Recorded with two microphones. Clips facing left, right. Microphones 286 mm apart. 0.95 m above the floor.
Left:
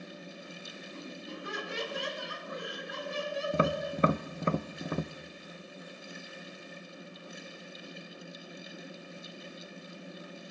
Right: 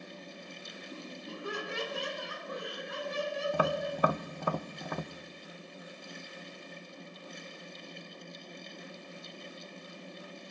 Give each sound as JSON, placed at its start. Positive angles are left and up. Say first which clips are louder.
{"t": 0.9, "sound": "laughter", "louder": "left 1 dB", "side_deg": -60, "distance_m": 6.0}
{"t": 3.5, "sound": "tapping", "louder": "left 4 dB", "side_deg": 25, "distance_m": 0.5}